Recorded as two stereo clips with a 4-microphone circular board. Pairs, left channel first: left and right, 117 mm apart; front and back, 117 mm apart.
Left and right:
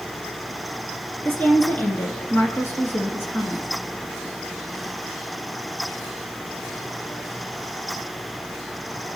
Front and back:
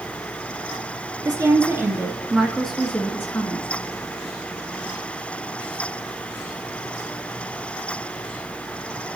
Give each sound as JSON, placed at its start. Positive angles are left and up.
{"t": 1.2, "sound": "a woman speaking", "azimuth_deg": 155, "distance_m": 1.4}